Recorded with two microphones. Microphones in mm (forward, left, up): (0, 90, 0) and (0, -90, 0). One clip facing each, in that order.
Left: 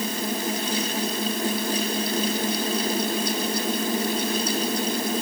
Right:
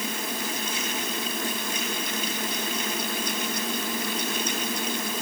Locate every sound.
Only background noise.